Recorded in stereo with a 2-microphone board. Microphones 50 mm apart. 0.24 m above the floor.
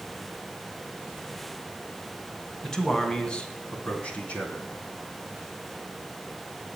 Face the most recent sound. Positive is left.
turn(degrees=30)  # may be behind; listen again after turning